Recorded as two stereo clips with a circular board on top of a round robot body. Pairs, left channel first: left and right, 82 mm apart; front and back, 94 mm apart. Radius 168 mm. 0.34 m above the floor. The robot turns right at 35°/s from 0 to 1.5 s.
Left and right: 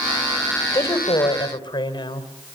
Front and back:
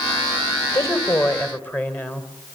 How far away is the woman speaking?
About 3 m.